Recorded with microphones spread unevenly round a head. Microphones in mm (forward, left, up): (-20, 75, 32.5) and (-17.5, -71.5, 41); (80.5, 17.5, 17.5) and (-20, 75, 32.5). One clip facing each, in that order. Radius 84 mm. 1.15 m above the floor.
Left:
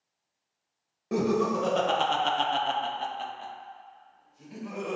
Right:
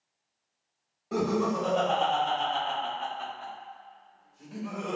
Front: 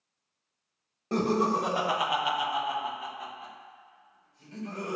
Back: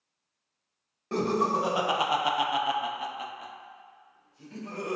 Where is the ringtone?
I don't hear a ringtone.